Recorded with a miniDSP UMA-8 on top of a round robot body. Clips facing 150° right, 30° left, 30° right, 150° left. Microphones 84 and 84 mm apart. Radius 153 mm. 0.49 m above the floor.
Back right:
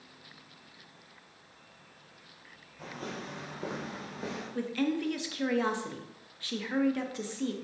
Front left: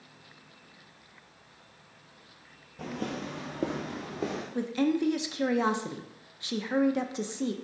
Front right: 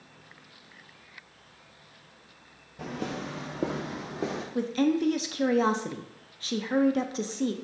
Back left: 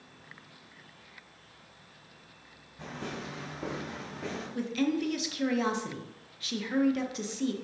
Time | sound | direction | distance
2.8 | footsteps | 10° right | 0.8 m
4.5 | a woman speaking | 25° right | 0.7 m